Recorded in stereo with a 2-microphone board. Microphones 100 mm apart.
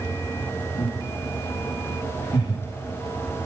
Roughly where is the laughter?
Left.